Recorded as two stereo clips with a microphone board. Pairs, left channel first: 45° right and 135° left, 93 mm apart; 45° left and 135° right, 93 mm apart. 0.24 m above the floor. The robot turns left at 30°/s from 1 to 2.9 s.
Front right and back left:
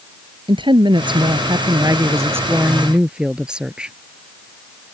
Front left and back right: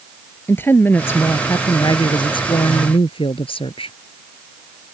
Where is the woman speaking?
110° left; by 4.0 s 55° left.